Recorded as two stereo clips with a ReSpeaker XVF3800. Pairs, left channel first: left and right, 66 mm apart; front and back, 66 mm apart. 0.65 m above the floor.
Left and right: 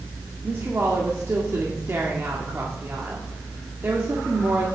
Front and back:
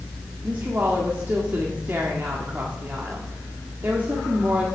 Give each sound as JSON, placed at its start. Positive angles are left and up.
{"t": 0.4, "sound": "a woman speaking", "azimuth_deg": -125, "distance_m": 1.7}